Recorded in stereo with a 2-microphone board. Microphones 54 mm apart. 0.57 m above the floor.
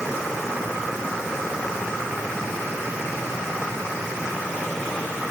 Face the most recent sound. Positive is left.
No sound to turn to.